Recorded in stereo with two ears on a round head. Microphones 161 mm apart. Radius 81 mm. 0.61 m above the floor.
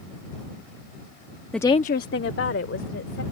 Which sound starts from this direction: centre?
A woman speaking, at 1.5 s.